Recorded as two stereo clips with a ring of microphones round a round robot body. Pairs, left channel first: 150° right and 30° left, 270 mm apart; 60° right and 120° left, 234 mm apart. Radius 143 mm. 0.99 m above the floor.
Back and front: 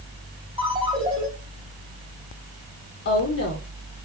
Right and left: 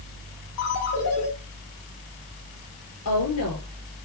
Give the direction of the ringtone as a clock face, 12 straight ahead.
1 o'clock.